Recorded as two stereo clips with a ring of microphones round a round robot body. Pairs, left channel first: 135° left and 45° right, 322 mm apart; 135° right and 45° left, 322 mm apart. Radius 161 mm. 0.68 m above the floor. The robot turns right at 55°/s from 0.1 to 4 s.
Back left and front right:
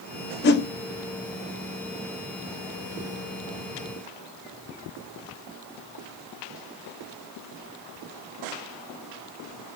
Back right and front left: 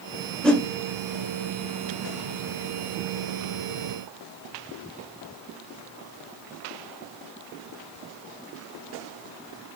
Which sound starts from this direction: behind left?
A whoosh, at 0.4 s.